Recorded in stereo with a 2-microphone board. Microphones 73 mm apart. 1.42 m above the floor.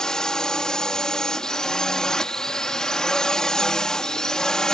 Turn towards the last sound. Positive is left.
turn(degrees=10)  # may be behind; listen again after turning